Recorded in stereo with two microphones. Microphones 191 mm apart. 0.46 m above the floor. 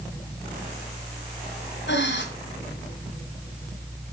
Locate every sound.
1.9 s breathing: 75° left (ahead or behind), 2.5 m